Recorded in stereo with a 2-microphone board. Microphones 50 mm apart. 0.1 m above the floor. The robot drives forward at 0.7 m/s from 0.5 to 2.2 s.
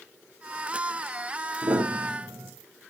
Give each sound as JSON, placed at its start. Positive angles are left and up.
{"t": 1.6, "sound": "a piano", "side_deg": -75, "distance_m": 5.0}